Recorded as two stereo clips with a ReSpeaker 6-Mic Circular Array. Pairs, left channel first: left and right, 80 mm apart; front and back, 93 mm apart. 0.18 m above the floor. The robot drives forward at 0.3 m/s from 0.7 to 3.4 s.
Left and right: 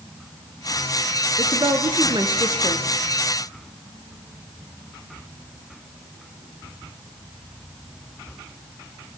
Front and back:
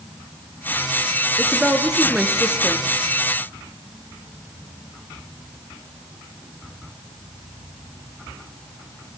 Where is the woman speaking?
90° right, 3 m; by 2.8 s 100° right, 3.5 m.